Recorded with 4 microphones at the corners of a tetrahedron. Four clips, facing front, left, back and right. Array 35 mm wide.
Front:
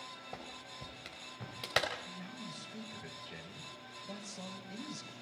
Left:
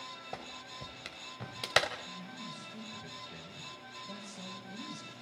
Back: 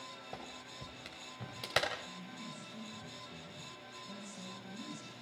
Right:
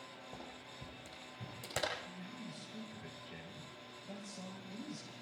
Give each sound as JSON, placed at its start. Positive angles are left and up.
{"t": 0.3, "sound": "a clap", "azimuth_deg": 90, "distance_m": 3.5}
{"t": 2.0, "sound": "a man speaking", "azimuth_deg": -5, "distance_m": 5.5}